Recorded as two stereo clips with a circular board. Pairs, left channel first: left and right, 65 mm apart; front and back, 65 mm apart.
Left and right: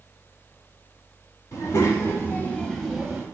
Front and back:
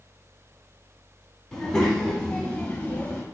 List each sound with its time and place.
1.5 s a child speaking: 80° left, 1.0 m; by 3.2 s 50° right, 0.6 m